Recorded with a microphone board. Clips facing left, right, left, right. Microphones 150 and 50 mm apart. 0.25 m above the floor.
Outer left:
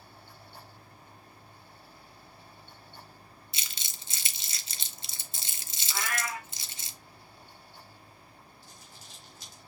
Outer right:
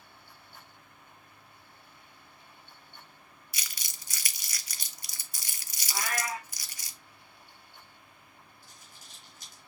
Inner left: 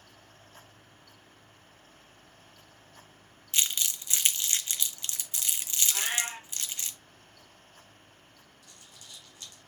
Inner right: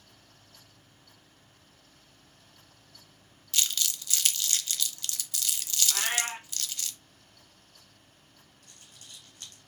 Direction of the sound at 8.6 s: 50° right (ahead or behind).